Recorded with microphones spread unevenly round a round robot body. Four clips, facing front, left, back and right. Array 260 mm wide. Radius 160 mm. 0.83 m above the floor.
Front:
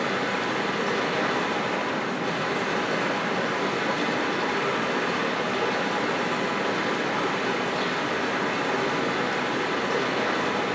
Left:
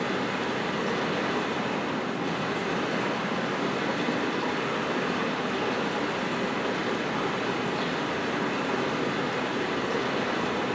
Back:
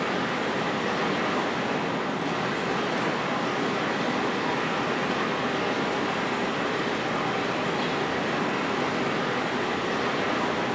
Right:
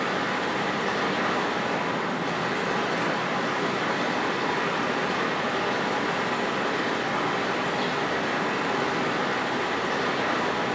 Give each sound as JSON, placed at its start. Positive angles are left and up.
{"t": 0.0, "sound": "running water", "azimuth_deg": 35, "distance_m": 3.0}